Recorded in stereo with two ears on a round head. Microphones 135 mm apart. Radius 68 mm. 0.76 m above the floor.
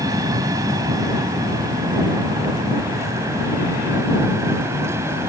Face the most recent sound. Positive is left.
turn(degrees=-15)  # may be behind; listen again after turning